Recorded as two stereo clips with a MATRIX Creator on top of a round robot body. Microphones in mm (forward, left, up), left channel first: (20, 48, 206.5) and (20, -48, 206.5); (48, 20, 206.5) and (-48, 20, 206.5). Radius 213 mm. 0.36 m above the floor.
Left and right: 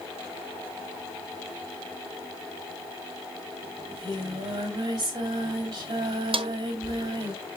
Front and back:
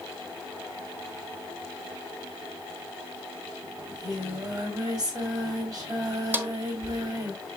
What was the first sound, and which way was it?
Singing, 130° right.